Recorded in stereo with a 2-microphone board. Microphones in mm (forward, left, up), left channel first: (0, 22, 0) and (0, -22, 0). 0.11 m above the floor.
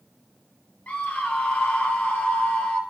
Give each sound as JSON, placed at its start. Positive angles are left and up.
{"t": 0.9, "sound": "a scream", "side_deg": 40, "distance_m": 2.0}